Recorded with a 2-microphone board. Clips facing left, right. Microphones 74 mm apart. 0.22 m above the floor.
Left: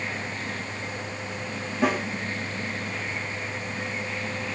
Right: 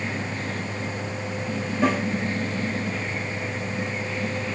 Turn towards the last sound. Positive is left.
turn(degrees=5)  # may be behind; listen again after turning